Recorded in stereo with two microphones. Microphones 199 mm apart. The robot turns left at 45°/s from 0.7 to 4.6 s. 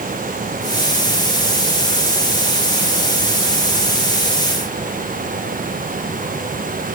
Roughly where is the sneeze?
No sneeze in this recording.